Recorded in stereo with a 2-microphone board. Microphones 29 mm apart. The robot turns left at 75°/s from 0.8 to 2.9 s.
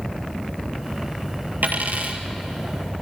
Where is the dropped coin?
90° right, 1.9 m; by 2.2 s 135° right, 1.9 m.